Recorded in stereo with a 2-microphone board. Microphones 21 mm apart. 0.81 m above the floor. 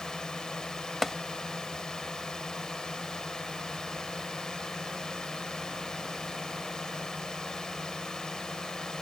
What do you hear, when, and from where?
0.0 s a drone: 30° left (ahead or behind)
1.0 s tapping: centre (ahead or behind)